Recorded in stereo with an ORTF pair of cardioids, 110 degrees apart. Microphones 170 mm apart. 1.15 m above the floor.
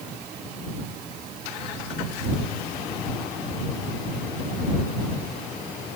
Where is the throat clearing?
No throat clearing in this recording.